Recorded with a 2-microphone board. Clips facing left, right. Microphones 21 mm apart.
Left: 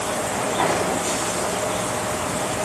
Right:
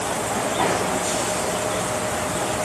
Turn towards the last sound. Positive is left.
No sound to turn to.